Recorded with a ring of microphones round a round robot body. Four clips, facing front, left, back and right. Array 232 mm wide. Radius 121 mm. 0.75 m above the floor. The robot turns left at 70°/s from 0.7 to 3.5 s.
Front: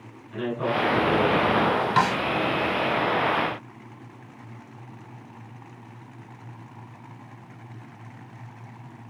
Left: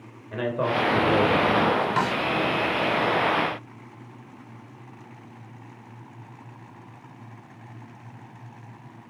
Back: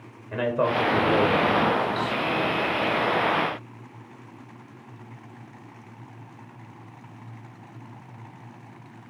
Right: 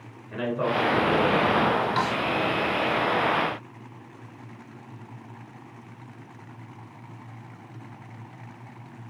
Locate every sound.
0.3 s a man speaking: straight behind, 3.5 m; by 1.9 s 100° left, 3.5 m
2.0 s a snare drum: 10° left, 1.0 m; by 2.2 s 10° right, 1.0 m